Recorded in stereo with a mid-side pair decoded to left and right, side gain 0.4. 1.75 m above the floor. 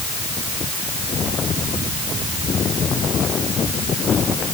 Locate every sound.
Only background noise.